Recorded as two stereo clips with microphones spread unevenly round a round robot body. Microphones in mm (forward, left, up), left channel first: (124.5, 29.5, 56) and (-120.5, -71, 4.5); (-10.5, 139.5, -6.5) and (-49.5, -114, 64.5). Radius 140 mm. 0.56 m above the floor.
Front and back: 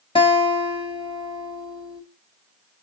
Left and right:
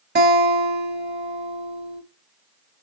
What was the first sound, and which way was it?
A guitar, 55° right.